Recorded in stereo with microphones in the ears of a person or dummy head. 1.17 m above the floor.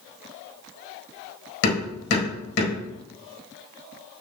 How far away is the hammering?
About 4.5 m.